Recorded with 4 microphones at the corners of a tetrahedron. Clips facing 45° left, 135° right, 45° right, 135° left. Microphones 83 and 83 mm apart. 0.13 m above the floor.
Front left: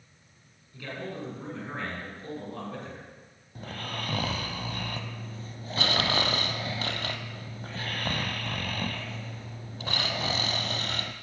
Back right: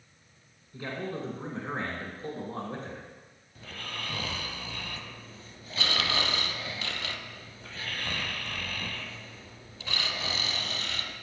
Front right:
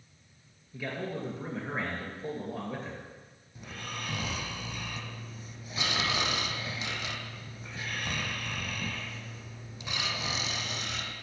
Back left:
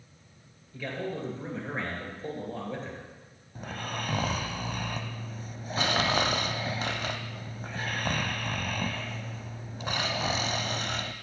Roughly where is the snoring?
Left.